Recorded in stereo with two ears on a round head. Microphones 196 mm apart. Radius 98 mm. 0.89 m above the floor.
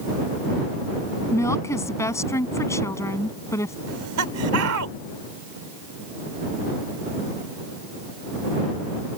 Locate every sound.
1.3 s a woman speaking: 15° left (ahead or behind)
3.9 s laughter: 75° right (ahead or behind)